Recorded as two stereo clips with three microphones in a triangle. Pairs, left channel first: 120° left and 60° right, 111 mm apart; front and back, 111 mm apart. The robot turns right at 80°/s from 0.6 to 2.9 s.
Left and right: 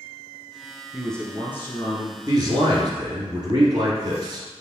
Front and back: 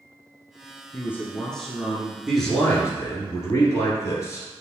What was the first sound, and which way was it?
A man speaking, 25° left.